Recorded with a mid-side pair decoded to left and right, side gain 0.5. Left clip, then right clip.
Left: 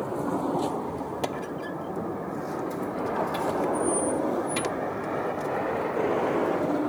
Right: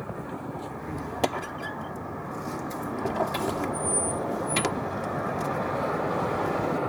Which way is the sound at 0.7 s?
35° right.